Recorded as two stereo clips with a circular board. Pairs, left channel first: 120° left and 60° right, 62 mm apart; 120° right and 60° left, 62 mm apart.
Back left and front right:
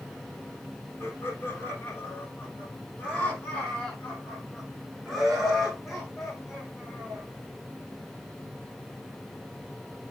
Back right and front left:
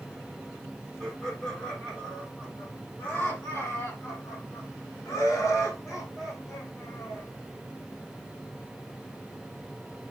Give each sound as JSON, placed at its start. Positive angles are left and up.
{"t": 1.0, "sound": "laughter", "azimuth_deg": 170, "distance_m": 3.0}